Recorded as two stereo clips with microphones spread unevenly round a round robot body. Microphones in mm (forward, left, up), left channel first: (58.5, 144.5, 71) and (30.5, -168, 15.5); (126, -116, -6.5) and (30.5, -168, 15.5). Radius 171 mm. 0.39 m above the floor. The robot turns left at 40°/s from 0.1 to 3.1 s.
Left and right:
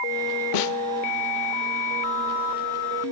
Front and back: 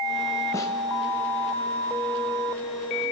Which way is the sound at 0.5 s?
90° left.